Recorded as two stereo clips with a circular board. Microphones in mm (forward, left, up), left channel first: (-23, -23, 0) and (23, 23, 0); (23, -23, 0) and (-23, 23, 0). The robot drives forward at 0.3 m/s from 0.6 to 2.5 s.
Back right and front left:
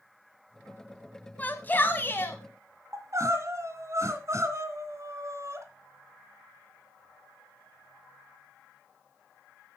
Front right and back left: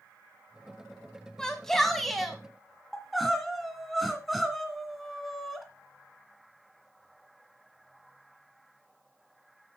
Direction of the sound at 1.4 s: 115° right.